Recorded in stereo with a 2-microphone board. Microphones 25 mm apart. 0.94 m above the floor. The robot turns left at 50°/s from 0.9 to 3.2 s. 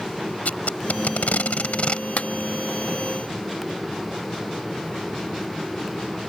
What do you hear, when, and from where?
0.5 s tape being pulled: 80° left; by 2.1 s 40° left (ahead or behind)
2.2 s a clap: 75° left (ahead or behind); by 2.3 s 70° left (ahead or behind)